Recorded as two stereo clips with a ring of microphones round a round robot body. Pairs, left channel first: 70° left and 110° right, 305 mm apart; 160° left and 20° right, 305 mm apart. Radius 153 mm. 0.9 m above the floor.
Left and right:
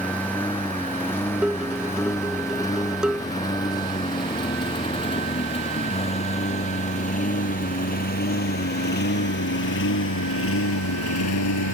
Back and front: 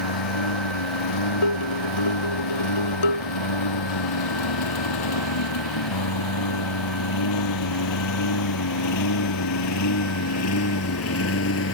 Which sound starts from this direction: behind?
Dishes clattering, at 1.4 s.